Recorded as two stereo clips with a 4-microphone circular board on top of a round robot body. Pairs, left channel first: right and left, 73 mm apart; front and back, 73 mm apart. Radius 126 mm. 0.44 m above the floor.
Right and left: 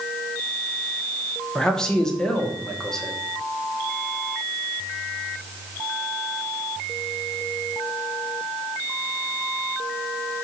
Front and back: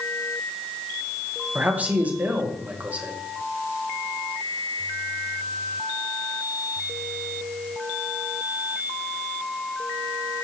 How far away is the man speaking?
About 1.4 m.